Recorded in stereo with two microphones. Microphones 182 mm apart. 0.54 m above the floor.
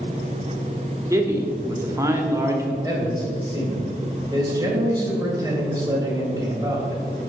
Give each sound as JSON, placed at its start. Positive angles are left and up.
{"t": 1.1, "sound": "a man speaking", "side_deg": -15, "distance_m": 1.3}
{"t": 2.8, "sound": "a man speaking", "side_deg": -20, "distance_m": 2.5}